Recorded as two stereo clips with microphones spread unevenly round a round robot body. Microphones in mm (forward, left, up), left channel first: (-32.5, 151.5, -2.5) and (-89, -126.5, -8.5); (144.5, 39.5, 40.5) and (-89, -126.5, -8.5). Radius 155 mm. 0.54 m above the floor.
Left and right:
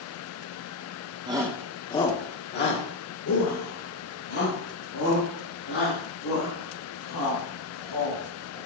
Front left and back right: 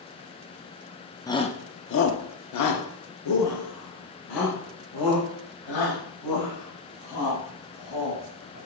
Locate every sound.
1.3 s a shout: 50° right, 1.0 m; by 8.6 s 50° left, 6 m